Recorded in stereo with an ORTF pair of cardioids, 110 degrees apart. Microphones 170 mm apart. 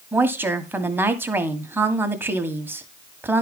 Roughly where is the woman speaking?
Ahead.